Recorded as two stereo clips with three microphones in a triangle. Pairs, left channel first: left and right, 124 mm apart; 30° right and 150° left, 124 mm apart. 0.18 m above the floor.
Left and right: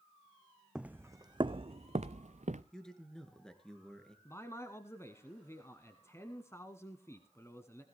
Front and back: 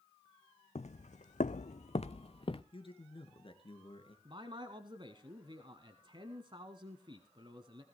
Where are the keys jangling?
I don't hear keys jangling.